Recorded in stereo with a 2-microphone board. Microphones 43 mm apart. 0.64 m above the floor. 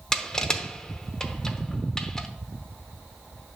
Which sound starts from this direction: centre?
Crushing, at 0.1 s.